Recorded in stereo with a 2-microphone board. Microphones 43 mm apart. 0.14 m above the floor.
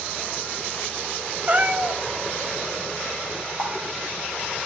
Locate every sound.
1.5 s a cat meowing: 30° right (ahead or behind), 0.8 m
3.6 s a running tap: 50° left (ahead or behind), 2.5 m